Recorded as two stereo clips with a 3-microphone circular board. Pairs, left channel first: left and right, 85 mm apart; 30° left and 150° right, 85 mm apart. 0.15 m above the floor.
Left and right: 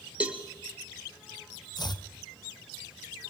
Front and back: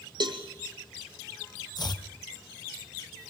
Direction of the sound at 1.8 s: 60° left.